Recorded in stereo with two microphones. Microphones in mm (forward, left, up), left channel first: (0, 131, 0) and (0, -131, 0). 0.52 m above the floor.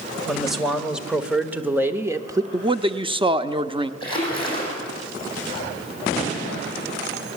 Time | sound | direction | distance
0.3 | a man speaking | centre (ahead or behind) | 2.0 m
2.5 | a man speaking | 20° right (ahead or behind) | 0.8 m
4.0 | a splash | 20° left (ahead or behind) | 7.5 m